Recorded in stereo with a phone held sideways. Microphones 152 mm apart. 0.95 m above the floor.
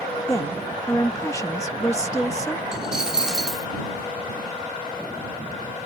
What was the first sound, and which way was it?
A woman speaking, 20° left (ahead or behind).